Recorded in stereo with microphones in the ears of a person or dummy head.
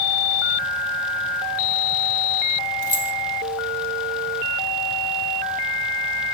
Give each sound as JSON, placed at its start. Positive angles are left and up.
{"t": 2.8, "sound": "keys jangling", "side_deg": 20, "distance_m": 0.7}